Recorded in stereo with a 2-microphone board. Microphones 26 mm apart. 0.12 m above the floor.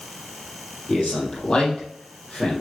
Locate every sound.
0.9 s a man speaking: 35° left (ahead or behind), 4.5 m